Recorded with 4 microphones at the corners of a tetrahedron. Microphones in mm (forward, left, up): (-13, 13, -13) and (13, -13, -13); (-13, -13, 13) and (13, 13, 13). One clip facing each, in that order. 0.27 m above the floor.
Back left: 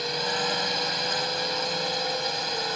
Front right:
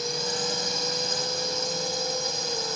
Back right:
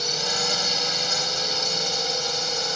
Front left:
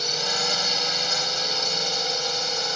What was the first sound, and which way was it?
A drone, 125° left.